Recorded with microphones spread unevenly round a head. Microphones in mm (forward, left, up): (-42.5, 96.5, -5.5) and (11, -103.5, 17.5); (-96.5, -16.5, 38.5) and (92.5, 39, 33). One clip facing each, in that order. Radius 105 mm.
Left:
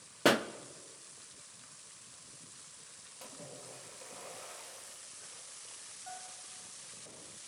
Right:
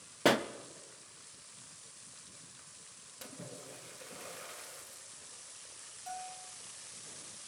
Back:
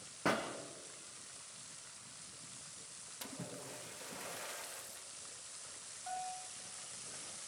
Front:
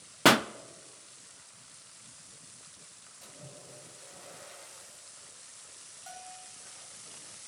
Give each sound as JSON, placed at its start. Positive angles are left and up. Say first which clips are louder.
{"t": 0.2, "sound": "a pop", "louder": "even, front 12 dB", "azimuth_deg": 20, "distance_m": 0.6}
{"t": 3.2, "sound": "a splash", "louder": "right 2 dB, back 4 dB", "azimuth_deg": -140, "distance_m": 2.5}
{"t": 6.1, "sound": "a bell", "louder": "right 6 dB, back 5 dB", "azimuth_deg": -35, "distance_m": 3.0}